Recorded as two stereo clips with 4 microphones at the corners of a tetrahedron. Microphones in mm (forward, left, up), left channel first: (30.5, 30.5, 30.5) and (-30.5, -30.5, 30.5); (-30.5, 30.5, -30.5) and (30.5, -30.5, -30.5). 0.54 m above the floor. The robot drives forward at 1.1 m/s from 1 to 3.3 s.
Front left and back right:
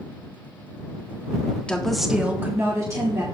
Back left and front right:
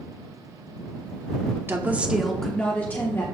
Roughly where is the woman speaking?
Ahead.